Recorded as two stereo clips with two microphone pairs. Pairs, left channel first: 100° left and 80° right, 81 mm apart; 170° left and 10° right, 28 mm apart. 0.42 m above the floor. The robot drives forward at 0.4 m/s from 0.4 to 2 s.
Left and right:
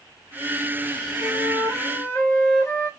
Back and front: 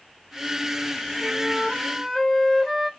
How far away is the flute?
About 1.4 m.